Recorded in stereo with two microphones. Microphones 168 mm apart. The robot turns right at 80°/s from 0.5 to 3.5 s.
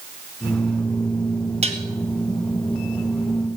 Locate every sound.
1.6 s dishes clattering: 35° right (ahead or behind), 1.6 m; by 1.8 s 45° right (ahead or behind), 1.6 m